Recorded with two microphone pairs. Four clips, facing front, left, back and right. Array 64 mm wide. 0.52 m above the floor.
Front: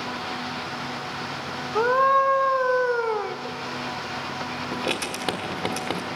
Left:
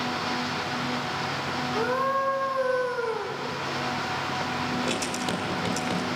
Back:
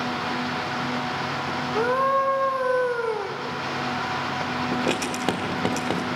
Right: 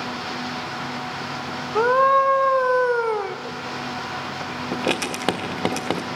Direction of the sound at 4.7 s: 95° right.